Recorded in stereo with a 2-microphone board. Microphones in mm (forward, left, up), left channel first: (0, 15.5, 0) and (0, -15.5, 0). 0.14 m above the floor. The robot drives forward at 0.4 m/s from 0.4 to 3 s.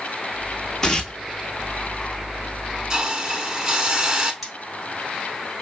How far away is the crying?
No crying in this recording.